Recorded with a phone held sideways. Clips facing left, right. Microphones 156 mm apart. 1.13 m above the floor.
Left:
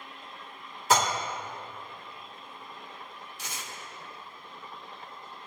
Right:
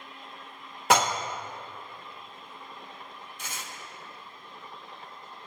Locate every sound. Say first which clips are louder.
0.9 s dishes clattering: right 2 dB; 70° right (ahead or behind), 0.7 m
3.4 s tearing paper: right 1 dB; 55° right (ahead or behind), 1.5 m